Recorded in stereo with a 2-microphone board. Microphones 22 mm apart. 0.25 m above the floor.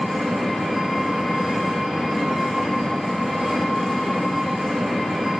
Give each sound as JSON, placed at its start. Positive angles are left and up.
{"t": 0.0, "sound": "an engine running", "side_deg": -5, "distance_m": 1.6}